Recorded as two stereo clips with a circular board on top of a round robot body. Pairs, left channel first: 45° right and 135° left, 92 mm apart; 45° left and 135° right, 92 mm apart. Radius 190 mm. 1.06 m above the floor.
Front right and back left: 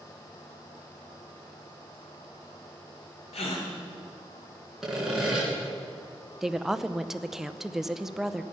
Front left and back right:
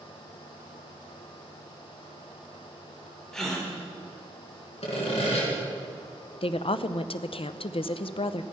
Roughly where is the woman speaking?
Ahead left.